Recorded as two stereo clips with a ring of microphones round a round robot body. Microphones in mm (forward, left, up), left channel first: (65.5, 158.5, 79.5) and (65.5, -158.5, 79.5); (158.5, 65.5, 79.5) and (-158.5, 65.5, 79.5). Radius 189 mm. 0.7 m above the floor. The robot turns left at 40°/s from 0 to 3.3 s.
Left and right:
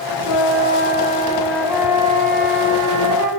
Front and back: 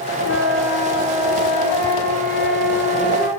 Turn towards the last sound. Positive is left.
turn(degrees=-65)